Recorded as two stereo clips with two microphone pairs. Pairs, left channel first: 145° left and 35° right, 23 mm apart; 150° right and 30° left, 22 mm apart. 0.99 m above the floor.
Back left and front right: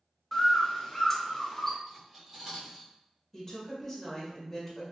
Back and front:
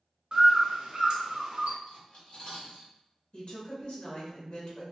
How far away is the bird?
About 0.6 m.